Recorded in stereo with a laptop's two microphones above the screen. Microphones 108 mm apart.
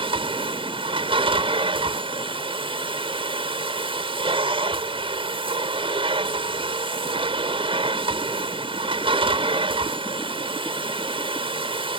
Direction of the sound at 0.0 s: 55° right (ahead or behind).